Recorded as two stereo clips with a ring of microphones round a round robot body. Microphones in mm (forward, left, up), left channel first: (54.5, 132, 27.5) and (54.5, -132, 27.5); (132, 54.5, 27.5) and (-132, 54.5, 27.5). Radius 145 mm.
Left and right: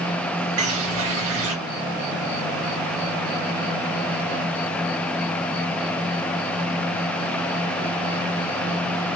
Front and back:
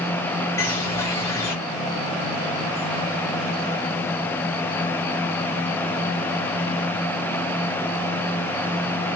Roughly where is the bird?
Right.